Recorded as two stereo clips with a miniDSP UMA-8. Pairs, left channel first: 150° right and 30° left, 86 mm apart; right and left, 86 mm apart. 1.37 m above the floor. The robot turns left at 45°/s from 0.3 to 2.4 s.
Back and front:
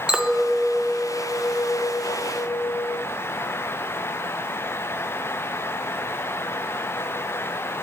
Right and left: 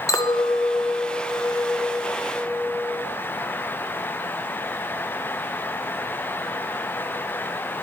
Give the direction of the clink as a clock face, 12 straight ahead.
2 o'clock.